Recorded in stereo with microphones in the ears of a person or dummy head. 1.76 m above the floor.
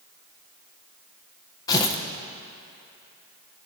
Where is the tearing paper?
25° left (ahead or behind), 1.5 m.